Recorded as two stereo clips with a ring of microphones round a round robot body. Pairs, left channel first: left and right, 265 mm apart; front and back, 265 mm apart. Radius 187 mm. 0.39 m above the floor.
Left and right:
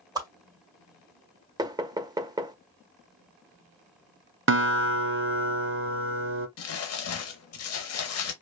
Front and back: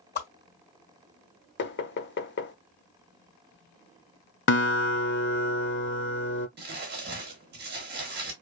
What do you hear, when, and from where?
0.1 s a whoosh: 20° right, 1.8 m
1.6 s knocking: 20° right, 0.7 m
4.5 s a guitar: 45° right, 0.9 m
6.6 s crumpling: 120° left, 0.8 m